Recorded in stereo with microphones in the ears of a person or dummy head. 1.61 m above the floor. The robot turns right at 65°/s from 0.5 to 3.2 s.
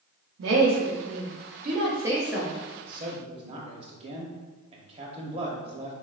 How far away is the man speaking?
About 0.8 m.